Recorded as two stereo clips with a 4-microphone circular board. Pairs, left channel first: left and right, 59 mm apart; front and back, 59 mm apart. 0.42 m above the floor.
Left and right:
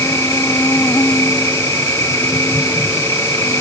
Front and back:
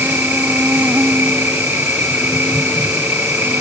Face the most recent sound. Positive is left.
turn(degrees=125)